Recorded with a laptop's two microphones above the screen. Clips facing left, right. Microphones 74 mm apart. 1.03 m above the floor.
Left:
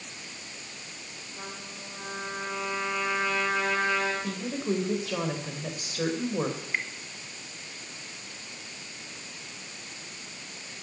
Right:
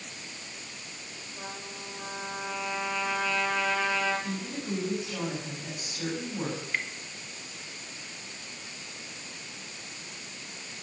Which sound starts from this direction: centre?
Dripping, at 6.6 s.